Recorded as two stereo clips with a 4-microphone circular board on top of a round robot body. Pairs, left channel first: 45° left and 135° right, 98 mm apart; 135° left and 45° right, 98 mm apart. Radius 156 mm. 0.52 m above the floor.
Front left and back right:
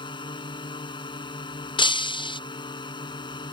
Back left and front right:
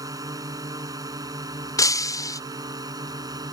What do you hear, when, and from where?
0.0 s a drone: 10° left; by 3.5 s 5° left
1.8 s breaking glass: 80° left